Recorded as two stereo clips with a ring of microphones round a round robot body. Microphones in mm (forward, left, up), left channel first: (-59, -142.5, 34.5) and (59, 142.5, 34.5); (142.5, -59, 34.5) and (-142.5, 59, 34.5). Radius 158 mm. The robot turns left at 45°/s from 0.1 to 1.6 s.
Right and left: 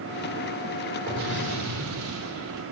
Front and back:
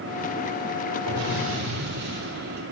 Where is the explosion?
125° left, 3 m; by 2.6 s 100° left, 3 m.